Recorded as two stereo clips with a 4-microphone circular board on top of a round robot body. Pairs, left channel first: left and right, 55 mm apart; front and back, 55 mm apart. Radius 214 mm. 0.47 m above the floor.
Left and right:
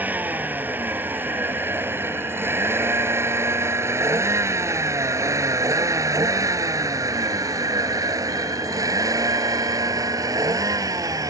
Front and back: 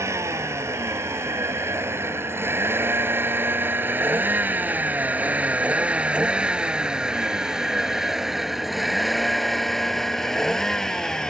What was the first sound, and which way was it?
A vehicle, 150° right.